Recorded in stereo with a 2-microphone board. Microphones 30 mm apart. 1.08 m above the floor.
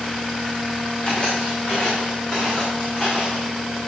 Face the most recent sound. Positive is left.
turn(degrees=20)  # may be behind; listen again after turning